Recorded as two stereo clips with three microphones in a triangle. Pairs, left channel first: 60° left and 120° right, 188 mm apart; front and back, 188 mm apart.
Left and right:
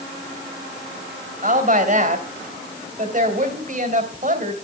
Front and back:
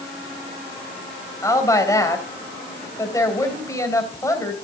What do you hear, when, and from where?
1.4 s a woman speaking: 75° right, 2.5 m